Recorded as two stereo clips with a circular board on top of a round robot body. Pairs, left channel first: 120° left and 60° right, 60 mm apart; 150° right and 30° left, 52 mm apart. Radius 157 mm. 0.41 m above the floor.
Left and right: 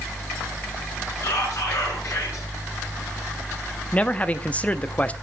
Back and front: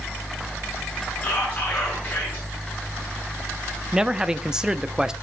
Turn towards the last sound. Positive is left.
turn(degrees=90)